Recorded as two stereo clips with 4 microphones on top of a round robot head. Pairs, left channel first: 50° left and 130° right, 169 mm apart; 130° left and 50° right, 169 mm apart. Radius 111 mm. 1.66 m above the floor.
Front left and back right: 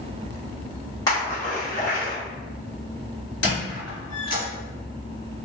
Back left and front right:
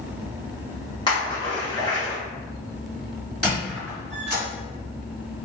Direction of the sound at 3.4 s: 45° left.